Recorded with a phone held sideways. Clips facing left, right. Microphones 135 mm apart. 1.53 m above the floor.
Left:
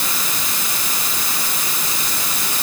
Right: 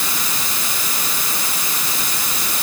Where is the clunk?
I don't hear a clunk.